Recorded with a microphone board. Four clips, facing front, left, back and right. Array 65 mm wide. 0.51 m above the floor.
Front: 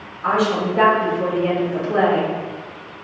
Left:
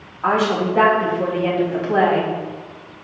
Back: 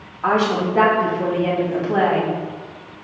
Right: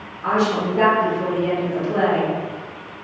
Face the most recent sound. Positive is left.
turn(degrees=115)